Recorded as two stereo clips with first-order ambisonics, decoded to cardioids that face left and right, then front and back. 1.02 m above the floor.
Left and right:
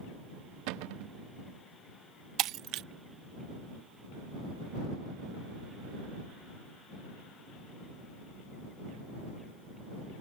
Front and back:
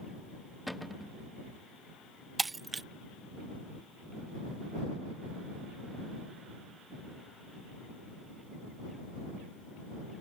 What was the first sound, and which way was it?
A cupboard door, 90° right.